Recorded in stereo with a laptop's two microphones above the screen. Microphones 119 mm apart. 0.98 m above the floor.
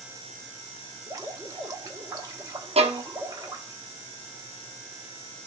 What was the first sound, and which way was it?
Dripping, 30° right (ahead or behind).